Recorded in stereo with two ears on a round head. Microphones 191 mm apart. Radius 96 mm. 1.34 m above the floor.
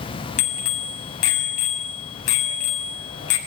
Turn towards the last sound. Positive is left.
turn(degrees=75)  # may be behind; listen again after turning